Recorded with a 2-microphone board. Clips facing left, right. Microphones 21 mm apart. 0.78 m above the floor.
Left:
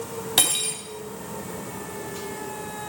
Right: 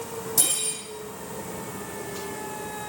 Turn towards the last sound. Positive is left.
turn(degrees=70)  # may be behind; listen again after turning